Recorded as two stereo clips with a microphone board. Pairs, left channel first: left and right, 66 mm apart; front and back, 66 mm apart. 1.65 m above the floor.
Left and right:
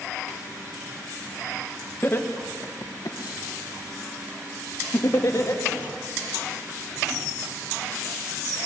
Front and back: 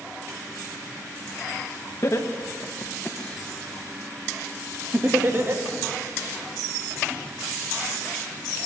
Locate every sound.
2.0 s laughter: 35° left, 1.9 m; by 5.6 s 130° left, 3 m